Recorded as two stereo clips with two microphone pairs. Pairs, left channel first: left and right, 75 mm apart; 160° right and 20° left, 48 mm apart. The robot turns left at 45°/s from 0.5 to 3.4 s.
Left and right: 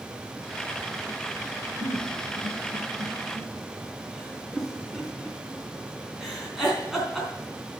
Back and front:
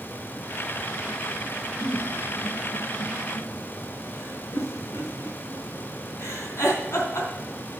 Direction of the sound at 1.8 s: 105° right.